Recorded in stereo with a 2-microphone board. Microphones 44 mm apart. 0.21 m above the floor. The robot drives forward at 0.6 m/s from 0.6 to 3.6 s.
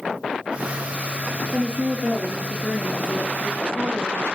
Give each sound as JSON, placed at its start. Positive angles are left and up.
{"t": 1.5, "sound": "a woman speaking", "side_deg": -55, "distance_m": 3.0}